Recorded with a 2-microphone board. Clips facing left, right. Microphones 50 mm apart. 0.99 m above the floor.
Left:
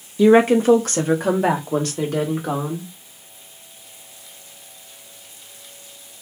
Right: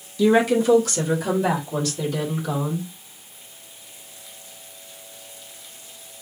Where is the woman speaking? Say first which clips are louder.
Left 4 dB; 30° left (ahead or behind), 0.7 m; by 2.9 s 50° left (ahead or behind), 2.5 m.